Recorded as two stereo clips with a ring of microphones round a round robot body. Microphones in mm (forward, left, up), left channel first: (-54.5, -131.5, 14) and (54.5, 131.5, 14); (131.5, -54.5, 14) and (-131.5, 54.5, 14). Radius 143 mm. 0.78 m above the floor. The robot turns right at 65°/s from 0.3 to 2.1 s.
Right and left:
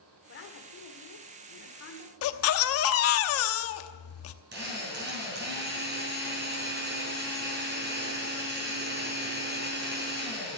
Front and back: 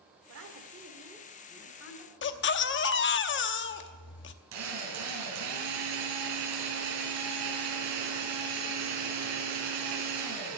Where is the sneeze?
No sneeze in this recording.